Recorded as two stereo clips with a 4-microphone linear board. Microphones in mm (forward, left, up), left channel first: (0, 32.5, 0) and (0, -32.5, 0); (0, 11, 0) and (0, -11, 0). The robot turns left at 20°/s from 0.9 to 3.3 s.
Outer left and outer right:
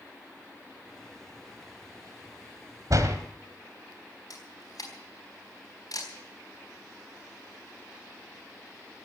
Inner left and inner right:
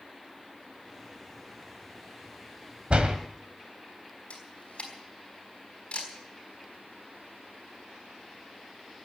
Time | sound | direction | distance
2.9 | a door slam | 60° right (ahead or behind) | 1.9 m
4.3 | a camera shutter | 65° left (ahead or behind) | 4 m